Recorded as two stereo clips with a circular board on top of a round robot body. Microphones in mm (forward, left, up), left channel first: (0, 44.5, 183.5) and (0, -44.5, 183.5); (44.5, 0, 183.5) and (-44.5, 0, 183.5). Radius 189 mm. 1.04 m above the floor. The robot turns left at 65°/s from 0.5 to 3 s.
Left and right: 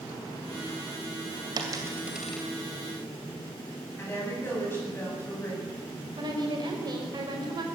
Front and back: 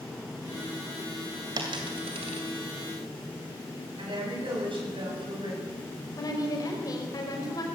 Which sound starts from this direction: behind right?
A dropped coin, at 1.6 s.